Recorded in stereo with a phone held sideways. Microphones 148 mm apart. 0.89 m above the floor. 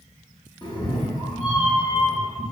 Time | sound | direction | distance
0.6 | a cat meowing | 30° left (ahead or behind) | 0.6 m